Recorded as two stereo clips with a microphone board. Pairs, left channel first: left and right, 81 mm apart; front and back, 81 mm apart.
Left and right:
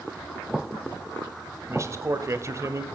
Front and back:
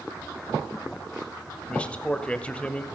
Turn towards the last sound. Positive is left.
turn(degrees=-65)